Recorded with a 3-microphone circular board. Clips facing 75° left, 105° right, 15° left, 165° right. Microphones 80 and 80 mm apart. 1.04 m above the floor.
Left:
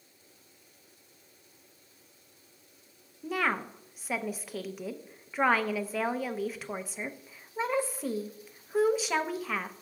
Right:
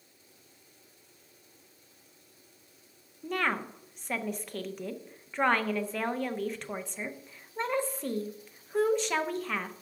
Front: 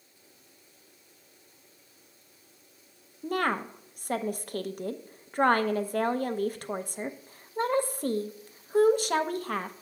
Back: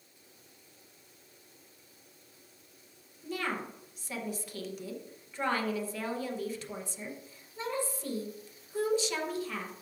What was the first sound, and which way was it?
A woman speaking, 10° right.